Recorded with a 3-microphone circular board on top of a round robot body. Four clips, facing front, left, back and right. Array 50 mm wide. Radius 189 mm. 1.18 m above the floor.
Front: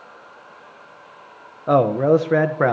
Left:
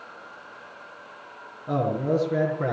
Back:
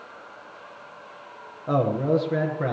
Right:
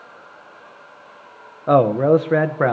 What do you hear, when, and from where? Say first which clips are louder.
1.7 s a man speaking: right 11 dB, front 7 dB; 65° right, 1.5 m; by 2.7 s 40° right, 1.8 m